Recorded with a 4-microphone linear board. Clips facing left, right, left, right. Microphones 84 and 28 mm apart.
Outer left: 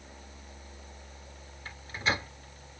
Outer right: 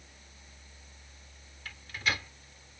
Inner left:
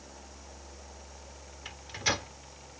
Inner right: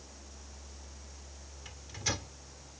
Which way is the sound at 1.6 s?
30° left (ahead or behind).